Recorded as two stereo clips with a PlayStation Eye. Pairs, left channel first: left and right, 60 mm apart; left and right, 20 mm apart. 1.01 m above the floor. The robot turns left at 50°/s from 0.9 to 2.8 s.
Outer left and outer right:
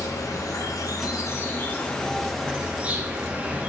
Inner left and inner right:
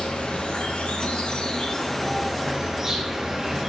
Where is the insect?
75° left, 1.4 m; by 3.7 s 20° right, 1.4 m.